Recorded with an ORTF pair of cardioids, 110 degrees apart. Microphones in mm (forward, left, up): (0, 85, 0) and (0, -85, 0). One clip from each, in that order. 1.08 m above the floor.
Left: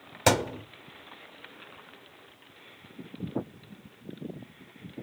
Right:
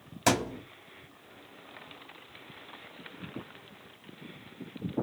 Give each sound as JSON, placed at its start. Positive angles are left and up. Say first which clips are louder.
{"t": 0.3, "sound": "a thud", "louder": "left 3 dB", "azimuth_deg": 30, "distance_m": 1.8}